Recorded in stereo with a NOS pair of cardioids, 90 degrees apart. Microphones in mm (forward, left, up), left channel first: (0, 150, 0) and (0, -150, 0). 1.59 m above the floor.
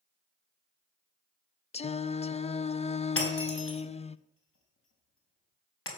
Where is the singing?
20° left, 0.6 m.